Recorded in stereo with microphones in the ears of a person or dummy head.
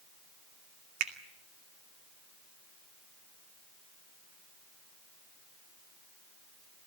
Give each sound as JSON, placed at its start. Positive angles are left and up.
{"t": 1.0, "sound": "a finger snap", "side_deg": -55, "distance_m": 1.9}